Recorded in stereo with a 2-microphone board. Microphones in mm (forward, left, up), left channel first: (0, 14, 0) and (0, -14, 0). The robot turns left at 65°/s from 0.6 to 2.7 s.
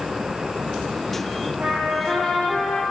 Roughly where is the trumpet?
Behind right.